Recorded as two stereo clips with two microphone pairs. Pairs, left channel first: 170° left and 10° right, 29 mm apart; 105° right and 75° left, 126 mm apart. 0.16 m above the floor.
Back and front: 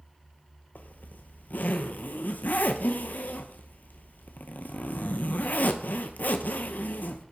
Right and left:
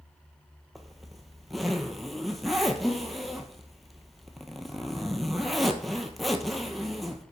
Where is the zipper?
170° left, 0.8 m.